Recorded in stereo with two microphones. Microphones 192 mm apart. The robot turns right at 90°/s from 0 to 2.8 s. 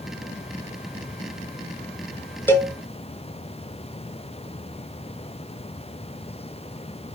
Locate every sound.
2.5 s a cowbell: 10° left (ahead or behind), 0.6 m; by 2.7 s 30° left (ahead or behind), 0.6 m